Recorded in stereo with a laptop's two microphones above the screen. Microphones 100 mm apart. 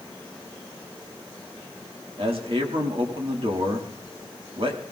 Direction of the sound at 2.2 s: 65° right (ahead or behind).